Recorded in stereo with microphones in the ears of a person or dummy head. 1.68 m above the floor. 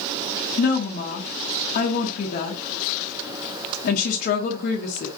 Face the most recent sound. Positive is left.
turn(degrees=55)  # may be behind; listen again after turning